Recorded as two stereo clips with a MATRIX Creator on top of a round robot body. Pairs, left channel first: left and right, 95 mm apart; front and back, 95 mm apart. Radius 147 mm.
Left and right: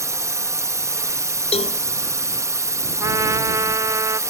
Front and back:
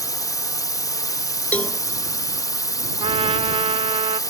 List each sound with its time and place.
0.0 s a drone: 40° right
1.5 s a cowbell: 75° left
3.0 s a trumpet: 150° right